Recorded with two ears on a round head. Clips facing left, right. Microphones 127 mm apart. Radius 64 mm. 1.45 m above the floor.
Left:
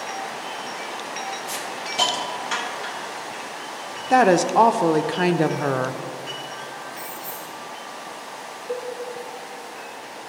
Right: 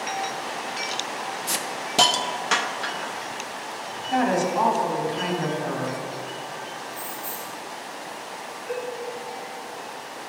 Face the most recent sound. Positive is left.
turn(degrees=5)  # may be behind; listen again after turning